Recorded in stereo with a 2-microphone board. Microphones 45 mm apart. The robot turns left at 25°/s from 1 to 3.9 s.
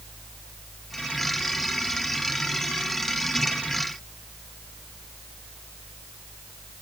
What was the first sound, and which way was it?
Only background noise.